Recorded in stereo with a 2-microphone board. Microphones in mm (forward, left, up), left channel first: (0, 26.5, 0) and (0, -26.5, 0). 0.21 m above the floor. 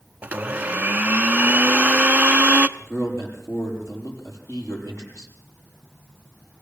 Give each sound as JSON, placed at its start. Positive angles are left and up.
{"t": 0.2, "sound": "a blender", "side_deg": -30, "distance_m": 0.6}
{"t": 2.8, "sound": "a man speaking", "side_deg": 80, "distance_m": 7.5}